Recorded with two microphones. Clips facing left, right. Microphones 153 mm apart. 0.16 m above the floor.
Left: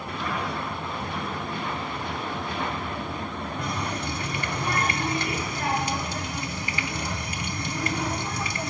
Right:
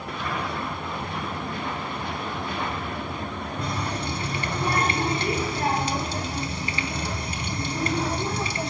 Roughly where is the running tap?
Right.